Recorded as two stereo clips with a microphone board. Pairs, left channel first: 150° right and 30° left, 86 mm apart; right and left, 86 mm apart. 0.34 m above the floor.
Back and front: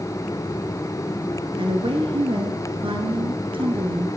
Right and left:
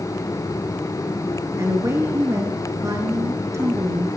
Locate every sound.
1.6 s a woman speaking: 35° left, 5 m